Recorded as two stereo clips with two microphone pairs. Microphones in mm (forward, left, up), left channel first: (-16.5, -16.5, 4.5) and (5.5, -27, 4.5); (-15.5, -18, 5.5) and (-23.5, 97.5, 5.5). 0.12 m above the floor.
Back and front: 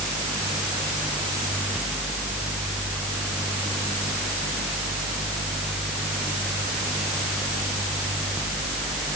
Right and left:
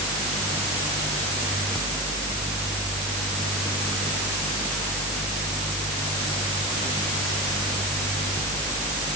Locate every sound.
Only background noise.